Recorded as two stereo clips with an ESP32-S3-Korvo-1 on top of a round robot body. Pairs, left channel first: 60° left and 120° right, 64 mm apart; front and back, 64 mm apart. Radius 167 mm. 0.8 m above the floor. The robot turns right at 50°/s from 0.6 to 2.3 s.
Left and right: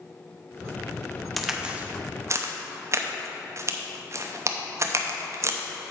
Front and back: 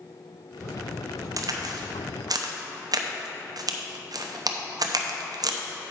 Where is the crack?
150° left, 0.9 m; by 5.6 s 165° right, 0.9 m.